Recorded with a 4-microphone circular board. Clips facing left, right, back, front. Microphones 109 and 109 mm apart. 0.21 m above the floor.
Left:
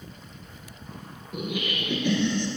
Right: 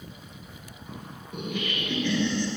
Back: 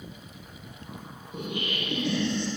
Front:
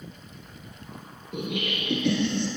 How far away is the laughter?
About 3 m.